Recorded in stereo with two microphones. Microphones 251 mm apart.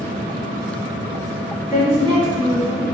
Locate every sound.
1.7 s a woman speaking: 15° right (ahead or behind), 1.2 m